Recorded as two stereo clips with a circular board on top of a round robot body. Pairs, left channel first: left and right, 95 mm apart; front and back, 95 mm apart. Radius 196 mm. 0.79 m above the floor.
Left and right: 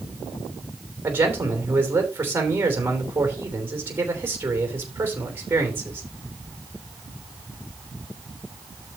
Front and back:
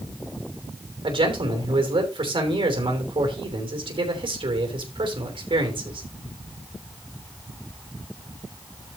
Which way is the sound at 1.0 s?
155° right.